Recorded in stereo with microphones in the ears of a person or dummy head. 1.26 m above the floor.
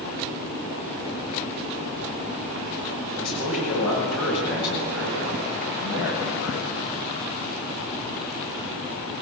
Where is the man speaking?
75° left (ahead or behind), 8.5 m; by 7.0 s 85° left, 8 m.